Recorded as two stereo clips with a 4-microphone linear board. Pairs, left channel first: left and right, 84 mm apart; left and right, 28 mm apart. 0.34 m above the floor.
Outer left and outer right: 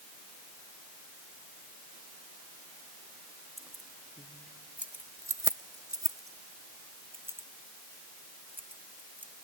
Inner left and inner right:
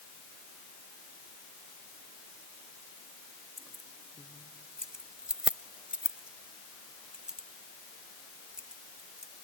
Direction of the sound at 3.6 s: Centre (ahead or behind).